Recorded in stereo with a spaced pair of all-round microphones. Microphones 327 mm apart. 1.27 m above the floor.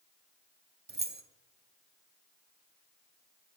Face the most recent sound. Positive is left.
turn(degrees=-30)  # may be behind; listen again after turning